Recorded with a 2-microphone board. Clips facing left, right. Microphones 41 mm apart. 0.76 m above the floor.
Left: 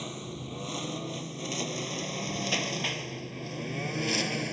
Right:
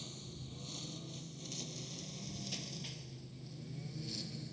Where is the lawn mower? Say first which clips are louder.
Left 12 dB; 55° left (ahead or behind); by 4.5 s 75° left (ahead or behind).